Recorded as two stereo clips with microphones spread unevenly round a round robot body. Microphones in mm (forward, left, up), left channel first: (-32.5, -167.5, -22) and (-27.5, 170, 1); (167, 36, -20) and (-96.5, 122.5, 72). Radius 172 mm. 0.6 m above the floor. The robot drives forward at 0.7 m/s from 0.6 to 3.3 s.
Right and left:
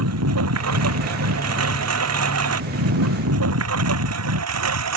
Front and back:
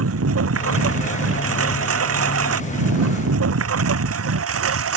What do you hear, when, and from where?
0.0 s a lawn mower: 130° left